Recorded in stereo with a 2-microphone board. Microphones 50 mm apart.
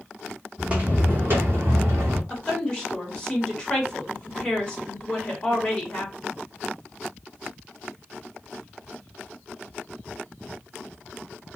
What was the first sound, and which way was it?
Footsteps, 20° right (ahead or behind).